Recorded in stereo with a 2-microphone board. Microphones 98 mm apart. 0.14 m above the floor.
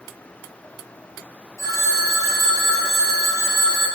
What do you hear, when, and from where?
1.6 s a phone ringing: 30° left (ahead or behind), 3 m